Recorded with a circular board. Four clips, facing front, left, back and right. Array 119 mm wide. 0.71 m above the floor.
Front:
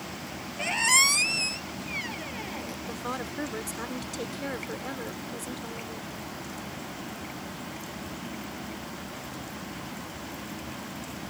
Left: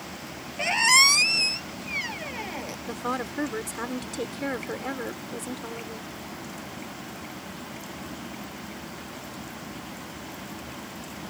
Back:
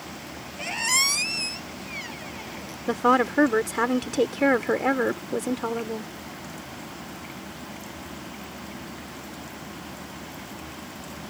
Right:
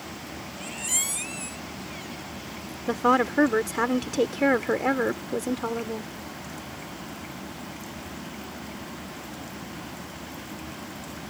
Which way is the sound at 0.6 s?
85° left.